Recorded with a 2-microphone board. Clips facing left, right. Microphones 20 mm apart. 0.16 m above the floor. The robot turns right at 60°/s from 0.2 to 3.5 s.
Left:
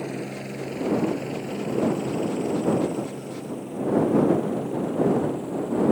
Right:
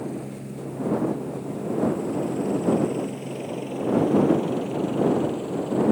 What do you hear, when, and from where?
0.0 s a helicopter: 45° left (ahead or behind); by 5.9 s 30° right (ahead or behind)